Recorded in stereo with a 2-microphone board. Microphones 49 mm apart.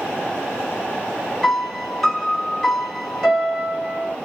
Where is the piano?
5° left (ahead or behind), 1.5 m.